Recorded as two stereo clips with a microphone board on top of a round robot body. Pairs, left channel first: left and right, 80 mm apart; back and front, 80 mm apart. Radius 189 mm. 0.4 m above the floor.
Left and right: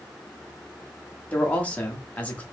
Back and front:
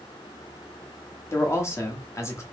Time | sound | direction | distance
1.3 | a man speaking | 150° left | 1.5 m